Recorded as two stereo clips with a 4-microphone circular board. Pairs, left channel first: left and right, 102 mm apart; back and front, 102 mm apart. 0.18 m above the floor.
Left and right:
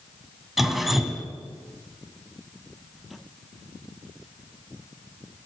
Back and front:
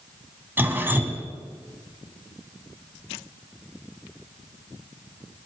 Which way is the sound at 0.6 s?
5° right.